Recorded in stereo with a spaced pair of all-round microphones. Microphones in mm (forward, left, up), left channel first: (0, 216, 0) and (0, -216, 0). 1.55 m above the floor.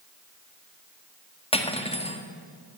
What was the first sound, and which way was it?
Cutlery clinking, 15° left (ahead or behind).